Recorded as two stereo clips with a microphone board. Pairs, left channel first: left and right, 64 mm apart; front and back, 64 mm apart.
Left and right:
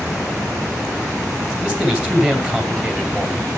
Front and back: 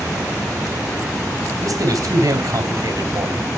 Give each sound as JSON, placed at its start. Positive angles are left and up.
{"t": 1.6, "sound": "a man speaking", "azimuth_deg": -165, "distance_m": 2.0}